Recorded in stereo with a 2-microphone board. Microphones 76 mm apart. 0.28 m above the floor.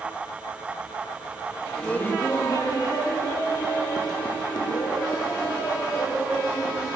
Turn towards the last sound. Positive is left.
turn(degrees=80)